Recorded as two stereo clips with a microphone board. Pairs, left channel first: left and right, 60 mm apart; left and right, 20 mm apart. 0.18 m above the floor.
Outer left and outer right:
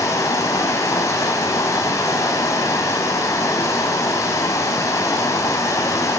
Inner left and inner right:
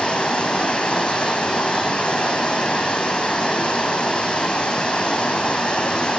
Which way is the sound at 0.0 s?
50° left (ahead or behind).